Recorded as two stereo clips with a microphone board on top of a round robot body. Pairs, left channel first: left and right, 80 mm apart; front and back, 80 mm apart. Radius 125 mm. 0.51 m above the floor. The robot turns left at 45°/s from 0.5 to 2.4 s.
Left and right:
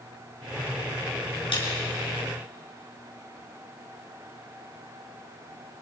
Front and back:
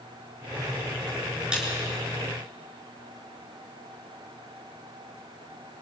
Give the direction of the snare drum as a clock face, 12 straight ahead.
9 o'clock.